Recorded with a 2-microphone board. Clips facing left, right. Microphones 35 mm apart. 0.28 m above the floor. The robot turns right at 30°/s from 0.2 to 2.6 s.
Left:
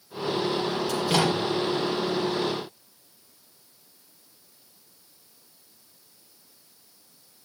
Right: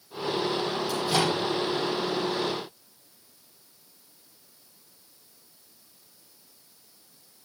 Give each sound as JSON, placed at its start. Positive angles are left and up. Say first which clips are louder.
{"t": 0.9, "sound": "a microwave", "louder": "left 2 dB", "side_deg": 80, "distance_m": 7.0}